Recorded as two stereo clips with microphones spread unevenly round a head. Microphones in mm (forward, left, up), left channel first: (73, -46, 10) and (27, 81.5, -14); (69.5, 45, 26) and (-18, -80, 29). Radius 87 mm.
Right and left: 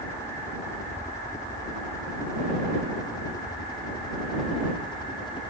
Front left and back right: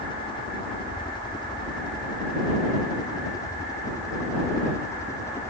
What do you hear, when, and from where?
0.0 s a helicopter: straight ahead; by 5.5 s 15° right